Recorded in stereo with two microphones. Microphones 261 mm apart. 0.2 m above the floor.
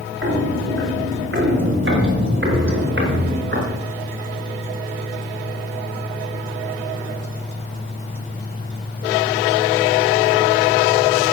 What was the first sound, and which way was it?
Footsteps, 55° right (ahead or behind).